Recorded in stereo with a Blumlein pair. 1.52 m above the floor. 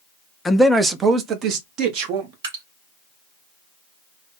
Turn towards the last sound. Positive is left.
turn(degrees=-60)